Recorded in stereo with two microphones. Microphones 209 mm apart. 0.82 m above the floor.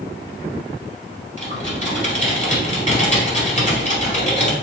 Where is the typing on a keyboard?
35° left (ahead or behind), 1.8 m.